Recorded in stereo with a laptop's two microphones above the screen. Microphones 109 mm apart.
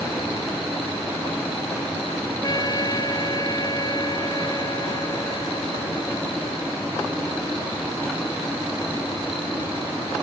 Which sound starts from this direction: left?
A trumpet, at 2.4 s.